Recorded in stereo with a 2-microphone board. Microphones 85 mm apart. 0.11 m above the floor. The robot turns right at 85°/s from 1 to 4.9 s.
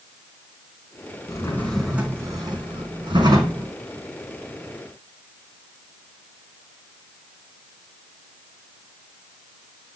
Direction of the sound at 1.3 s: 130° left.